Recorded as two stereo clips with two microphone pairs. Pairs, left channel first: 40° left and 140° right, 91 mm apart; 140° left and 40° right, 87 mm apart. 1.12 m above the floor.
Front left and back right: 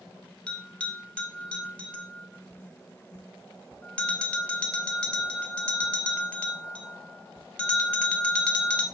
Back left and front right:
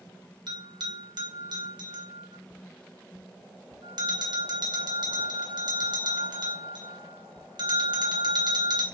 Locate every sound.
0.5 s a bell: 35° right, 0.6 m